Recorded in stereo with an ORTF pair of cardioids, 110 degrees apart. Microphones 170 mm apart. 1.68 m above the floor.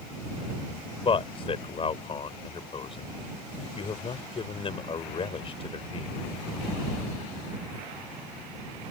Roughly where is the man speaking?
Ahead left.